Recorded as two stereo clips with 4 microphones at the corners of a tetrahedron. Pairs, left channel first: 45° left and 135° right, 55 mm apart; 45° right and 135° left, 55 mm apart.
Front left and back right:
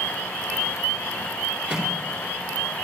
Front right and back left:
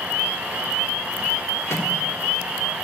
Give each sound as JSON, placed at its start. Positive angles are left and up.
{"t": 1.7, "sound": "a microwave", "azimuth_deg": -65, "distance_m": 1.7}